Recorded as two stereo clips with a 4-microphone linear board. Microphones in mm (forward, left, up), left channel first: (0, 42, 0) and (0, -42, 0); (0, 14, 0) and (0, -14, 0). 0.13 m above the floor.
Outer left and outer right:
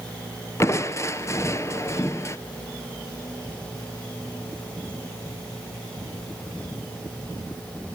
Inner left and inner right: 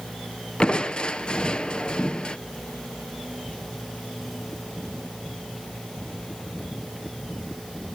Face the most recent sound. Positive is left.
turn(degrees=35)  # may be behind; listen again after turning